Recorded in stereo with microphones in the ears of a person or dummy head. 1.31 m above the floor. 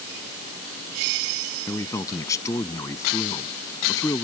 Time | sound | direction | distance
1.7 | a man speaking | 15° left (ahead or behind) | ?